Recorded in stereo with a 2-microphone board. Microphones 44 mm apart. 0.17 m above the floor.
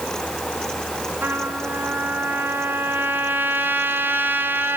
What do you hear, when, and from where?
1.2 s a trumpet: 50° right (ahead or behind), 1.7 m